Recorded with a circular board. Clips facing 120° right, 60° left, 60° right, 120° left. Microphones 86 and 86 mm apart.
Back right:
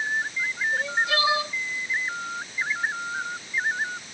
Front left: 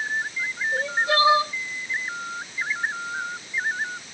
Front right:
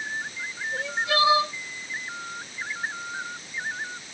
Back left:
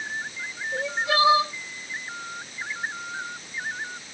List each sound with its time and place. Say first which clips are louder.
0.7 s crying: front left 4 dB, back left 2 dB; 75° left, 1.6 m